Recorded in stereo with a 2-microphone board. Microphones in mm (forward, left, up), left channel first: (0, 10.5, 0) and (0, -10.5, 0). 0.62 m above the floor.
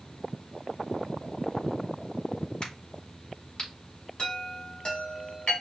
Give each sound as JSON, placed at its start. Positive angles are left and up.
{"t": 2.6, "sound": "a crack", "side_deg": 45, "distance_m": 3.5}
{"t": 4.2, "sound": "a chime", "side_deg": 50, "distance_m": 2.0}